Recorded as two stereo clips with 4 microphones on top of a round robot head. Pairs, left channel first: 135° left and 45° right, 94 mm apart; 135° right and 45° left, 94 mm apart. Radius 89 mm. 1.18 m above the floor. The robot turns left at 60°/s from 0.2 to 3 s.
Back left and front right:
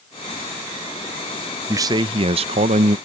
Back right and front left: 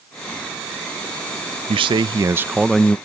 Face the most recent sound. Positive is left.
turn(degrees=-60)